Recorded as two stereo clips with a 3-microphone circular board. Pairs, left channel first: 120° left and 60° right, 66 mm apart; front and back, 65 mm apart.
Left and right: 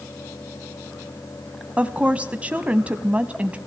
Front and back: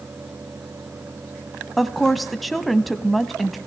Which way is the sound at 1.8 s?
85° right.